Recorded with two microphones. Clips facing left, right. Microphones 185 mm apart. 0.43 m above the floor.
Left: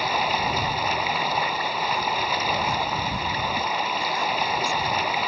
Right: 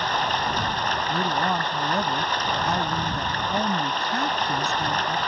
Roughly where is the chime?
I don't hear a chime.